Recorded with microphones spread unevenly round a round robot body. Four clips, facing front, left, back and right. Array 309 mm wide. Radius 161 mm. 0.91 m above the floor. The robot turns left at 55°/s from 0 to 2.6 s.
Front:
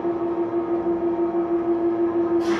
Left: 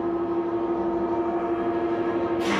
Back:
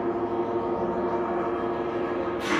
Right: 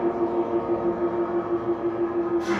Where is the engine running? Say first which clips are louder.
Right 1 dB, front 3 dB; 115° right, 0.9 m; by 2.6 s 105° left, 0.9 m.